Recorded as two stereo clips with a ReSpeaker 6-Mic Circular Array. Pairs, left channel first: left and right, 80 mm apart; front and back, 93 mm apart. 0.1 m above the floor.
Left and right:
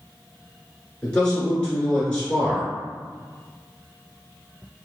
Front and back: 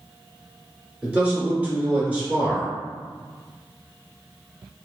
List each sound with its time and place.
1.0 s a man speaking: 135° left, 1.2 m